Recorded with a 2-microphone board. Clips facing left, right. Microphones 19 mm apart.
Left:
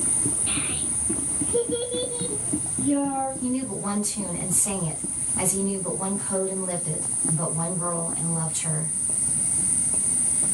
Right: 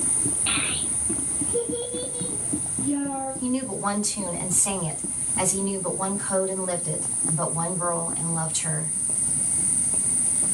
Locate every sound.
0.5 s a child speaking: 55° right (ahead or behind), 1.0 m; by 3.3 s 75° left (ahead or behind), 2.0 m
3.4 s a woman speaking: 45° right (ahead or behind), 2.5 m